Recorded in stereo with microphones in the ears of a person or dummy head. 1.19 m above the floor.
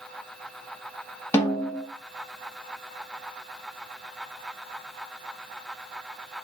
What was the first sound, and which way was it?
A snare drum, 10° left (ahead or behind).